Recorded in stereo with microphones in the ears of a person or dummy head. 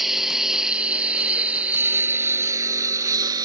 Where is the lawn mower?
Centre (ahead or behind); by 3.5 s 20° right (ahead or behind).